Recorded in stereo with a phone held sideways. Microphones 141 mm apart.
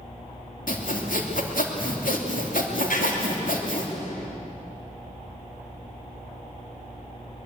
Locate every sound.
0.7 s sawing: 75° left (ahead or behind), 2.5 m
2.9 s writing: 75° left (ahead or behind), 4.5 m